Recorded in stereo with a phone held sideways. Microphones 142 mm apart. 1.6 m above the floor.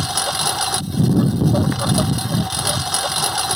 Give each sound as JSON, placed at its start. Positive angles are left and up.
{"t": 0.0, "sound": "a lawn mower", "side_deg": 0}